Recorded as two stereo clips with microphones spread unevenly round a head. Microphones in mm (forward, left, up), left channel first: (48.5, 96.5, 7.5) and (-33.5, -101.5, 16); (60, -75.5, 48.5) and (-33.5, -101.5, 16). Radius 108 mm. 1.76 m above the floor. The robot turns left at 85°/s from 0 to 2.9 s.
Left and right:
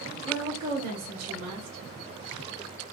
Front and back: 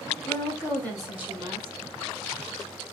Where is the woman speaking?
10° right, 2 m; by 1.9 s 145° right, 2 m.